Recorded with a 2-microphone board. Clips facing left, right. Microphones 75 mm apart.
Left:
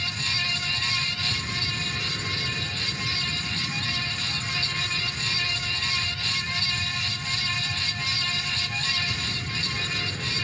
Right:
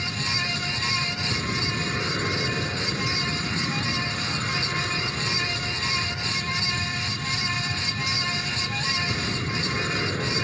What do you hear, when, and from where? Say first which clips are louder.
0.0 s an aircraft: right 2 dB; 40° right (ahead or behind)